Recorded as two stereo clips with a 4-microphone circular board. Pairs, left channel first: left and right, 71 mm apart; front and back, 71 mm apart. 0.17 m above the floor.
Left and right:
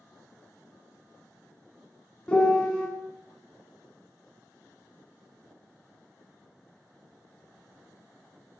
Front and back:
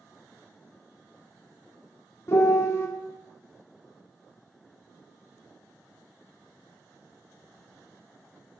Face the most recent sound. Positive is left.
turn(degrees=25)